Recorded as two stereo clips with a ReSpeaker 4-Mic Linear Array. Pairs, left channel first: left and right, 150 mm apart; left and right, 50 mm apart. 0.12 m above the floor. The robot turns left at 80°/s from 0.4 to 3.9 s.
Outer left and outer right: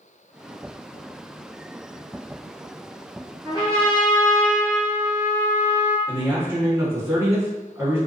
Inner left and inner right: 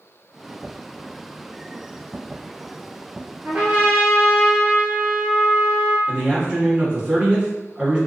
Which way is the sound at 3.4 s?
130° right.